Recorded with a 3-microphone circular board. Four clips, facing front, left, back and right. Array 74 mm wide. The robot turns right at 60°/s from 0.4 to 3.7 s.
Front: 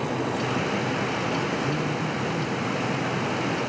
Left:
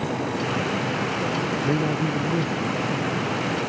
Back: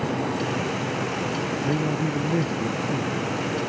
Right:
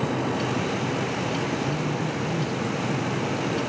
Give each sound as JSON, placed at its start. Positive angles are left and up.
{"t": 1.6, "sound": "a man speaking", "azimuth_deg": 110}